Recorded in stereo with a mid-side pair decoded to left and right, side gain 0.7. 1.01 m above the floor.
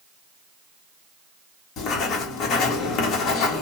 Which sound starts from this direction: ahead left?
Writing, at 1.8 s.